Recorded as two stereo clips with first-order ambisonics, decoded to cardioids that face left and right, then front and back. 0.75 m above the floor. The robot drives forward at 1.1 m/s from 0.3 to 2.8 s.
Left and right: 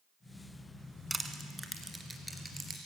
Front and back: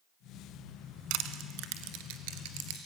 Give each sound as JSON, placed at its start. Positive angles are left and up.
{"t": 1.1, "sound": "crushing", "azimuth_deg": -170, "distance_m": 1.5}